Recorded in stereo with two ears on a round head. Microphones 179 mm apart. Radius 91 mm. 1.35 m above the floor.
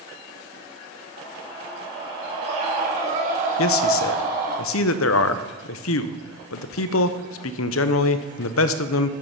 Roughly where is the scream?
Right.